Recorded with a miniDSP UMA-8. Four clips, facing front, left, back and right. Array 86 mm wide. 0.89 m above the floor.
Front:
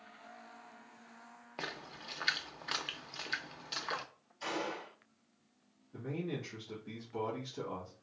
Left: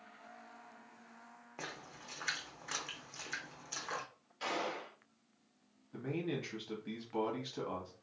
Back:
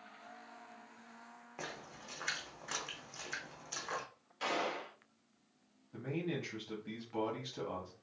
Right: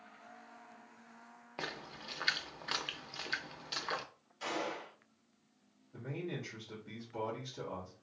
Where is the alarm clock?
I don't hear an alarm clock.